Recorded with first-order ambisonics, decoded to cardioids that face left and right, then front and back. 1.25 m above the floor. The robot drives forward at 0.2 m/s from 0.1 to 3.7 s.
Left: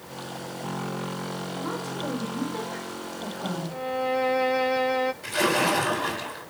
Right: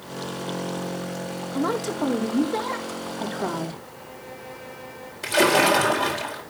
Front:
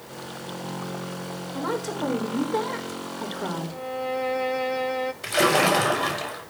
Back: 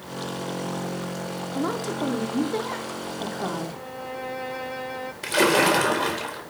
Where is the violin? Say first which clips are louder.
Left 14 dB, front 6 dB; 85° left, 1.2 m.